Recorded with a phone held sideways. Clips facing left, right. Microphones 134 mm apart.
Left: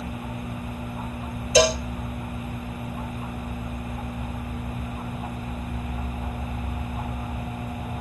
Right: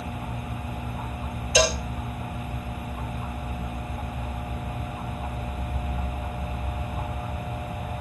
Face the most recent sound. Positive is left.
turn(degrees=35)  # may be behind; listen again after turning